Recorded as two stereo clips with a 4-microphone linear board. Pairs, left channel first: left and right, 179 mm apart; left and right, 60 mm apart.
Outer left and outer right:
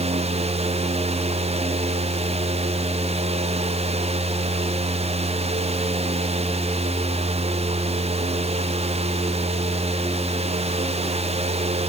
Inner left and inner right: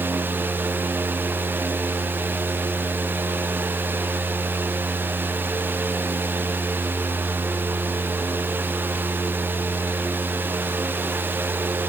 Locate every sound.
Only background noise.